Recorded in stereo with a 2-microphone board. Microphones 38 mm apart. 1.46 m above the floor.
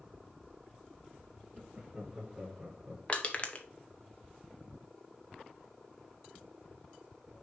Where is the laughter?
20° right (ahead or behind), 2.5 m; by 3.0 s 5° left (ahead or behind), 1.0 m.